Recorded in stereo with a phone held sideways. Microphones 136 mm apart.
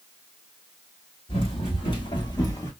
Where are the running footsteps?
40° left (ahead or behind), 1.4 m; by 2.7 s 25° left (ahead or behind), 0.8 m.